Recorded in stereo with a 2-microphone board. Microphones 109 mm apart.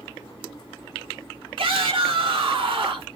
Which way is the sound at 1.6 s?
60° right (ahead or behind).